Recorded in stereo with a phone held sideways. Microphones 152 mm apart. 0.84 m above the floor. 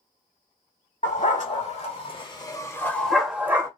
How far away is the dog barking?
About 1.3 m.